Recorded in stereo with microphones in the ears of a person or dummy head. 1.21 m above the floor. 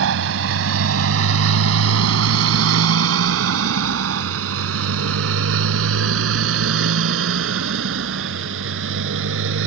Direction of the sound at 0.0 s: 75° right (ahead or behind).